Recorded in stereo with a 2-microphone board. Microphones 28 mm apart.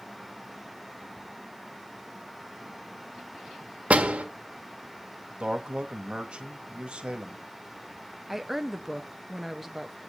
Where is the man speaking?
35° right (ahead or behind), 1.4 m.